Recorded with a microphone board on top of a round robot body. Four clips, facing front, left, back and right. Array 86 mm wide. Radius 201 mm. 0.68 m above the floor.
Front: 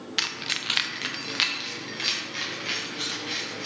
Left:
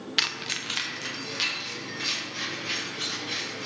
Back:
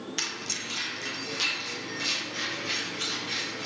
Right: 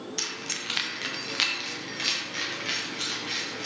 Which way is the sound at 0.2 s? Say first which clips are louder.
Left 3 dB, front 3 dB; 65° left.